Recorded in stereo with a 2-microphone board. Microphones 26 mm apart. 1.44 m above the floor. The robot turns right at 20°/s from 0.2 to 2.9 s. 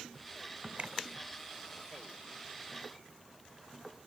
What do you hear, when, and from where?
0.8 s a finger snap: 60° right (ahead or behind); by 0.9 s 55° right (ahead or behind)